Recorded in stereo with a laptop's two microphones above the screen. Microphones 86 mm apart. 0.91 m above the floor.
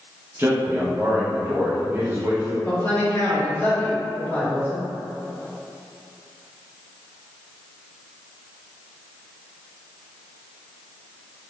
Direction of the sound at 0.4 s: 30° right (ahead or behind).